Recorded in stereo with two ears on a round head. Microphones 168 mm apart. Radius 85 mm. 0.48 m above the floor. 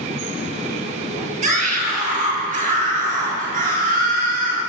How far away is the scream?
About 6 m.